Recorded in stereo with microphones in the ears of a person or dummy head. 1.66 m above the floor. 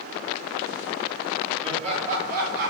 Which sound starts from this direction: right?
Laughter, at 1.6 s.